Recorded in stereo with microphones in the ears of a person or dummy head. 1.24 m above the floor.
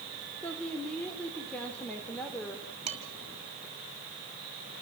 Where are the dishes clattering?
35° right (ahead or behind), 6 m.